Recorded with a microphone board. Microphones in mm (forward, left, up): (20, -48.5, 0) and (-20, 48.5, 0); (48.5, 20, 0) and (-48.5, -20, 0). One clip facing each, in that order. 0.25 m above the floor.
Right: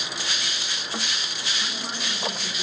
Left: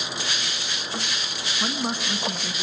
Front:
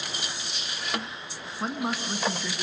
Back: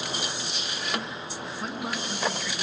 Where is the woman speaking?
75° left, 2.5 m.